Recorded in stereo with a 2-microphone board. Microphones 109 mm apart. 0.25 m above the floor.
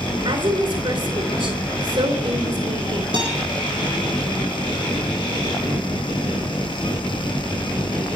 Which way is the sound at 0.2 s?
50° right (ahead or behind).